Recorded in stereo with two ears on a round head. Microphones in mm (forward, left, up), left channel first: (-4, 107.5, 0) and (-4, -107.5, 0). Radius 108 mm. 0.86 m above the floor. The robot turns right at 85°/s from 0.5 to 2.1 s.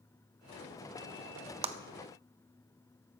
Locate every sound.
1.6 s a clap: 25° right (ahead or behind), 0.5 m